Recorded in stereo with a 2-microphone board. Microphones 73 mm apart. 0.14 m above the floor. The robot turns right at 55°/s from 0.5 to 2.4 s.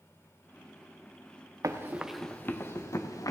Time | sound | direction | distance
1.6 | running footsteps | 50° right (ahead or behind) | 0.9 m